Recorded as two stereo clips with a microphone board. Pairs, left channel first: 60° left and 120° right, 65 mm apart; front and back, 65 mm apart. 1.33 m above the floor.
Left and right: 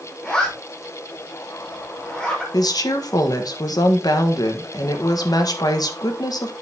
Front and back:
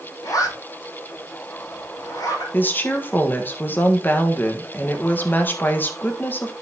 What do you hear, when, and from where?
0.2 s a zipper: 15° right, 3.5 m
2.5 s a woman speaking: 60° left, 1.4 m